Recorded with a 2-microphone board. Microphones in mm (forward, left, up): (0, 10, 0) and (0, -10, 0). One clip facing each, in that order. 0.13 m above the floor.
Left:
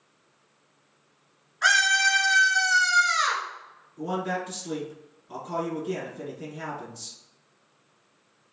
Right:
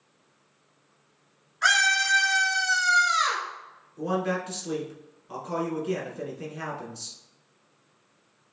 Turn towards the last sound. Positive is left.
turn(degrees=-20)  # may be behind; listen again after turning